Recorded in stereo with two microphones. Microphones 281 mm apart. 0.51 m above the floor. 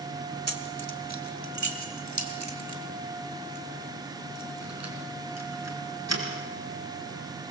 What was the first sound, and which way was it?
Keys jangling, 65° right (ahead or behind).